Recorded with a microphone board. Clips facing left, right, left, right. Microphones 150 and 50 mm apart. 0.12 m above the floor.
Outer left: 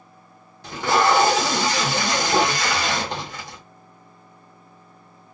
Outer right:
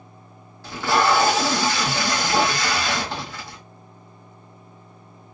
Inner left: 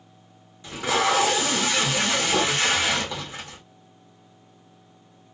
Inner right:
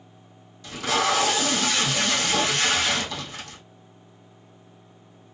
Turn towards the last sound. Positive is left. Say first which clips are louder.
# outer left 1 dB, inner left 1 dB
turn(degrees=20)  # may be behind; listen again after turning